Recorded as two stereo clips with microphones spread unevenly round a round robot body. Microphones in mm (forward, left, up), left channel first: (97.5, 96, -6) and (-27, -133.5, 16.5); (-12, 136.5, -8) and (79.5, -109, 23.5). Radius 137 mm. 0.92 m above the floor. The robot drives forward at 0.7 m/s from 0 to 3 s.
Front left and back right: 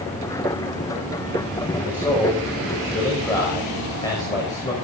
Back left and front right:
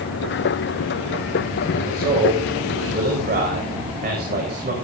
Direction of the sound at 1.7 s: 10° right.